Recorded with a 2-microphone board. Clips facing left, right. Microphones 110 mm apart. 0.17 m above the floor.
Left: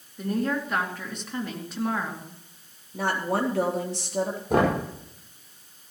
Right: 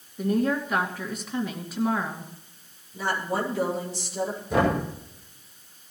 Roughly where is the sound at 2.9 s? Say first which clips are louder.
Left 2 dB; left.